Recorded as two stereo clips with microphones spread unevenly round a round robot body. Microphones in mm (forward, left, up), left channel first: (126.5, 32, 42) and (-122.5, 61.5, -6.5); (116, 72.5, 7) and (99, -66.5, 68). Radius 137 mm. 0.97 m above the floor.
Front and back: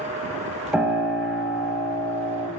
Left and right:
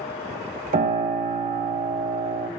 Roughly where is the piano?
Right.